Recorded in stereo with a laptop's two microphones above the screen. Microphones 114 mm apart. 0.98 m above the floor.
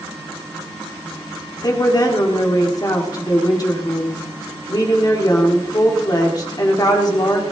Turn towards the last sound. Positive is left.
turn(degrees=35)  # may be behind; listen again after turning